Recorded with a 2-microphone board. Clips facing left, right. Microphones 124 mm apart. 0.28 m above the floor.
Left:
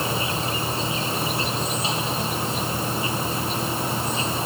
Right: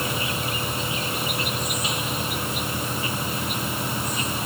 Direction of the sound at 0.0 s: 30° left (ahead or behind).